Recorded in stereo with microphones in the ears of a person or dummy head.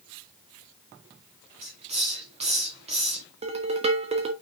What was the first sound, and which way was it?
A hiss, 35° right (ahead or behind).